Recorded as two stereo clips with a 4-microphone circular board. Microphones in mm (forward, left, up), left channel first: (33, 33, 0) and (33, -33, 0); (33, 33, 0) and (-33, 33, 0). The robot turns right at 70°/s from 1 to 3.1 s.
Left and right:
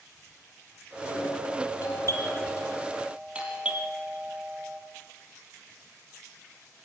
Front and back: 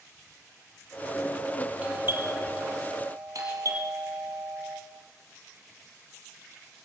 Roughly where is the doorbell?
Left.